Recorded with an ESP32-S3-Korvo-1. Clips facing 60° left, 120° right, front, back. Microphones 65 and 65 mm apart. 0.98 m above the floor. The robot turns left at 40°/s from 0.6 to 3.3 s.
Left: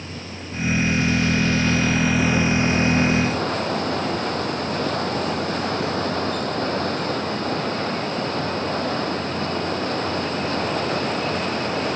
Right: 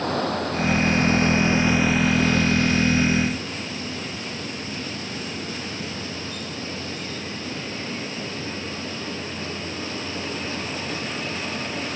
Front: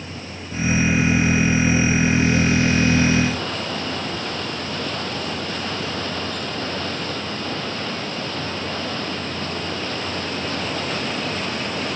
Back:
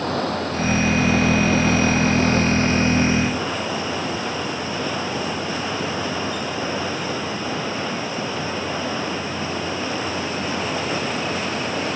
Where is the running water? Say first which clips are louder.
Right 11 dB, back 12 dB; 150° right; by 12.0 s 100° left.